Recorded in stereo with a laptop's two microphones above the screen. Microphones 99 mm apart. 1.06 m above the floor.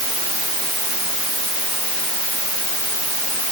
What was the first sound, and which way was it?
Only background noise.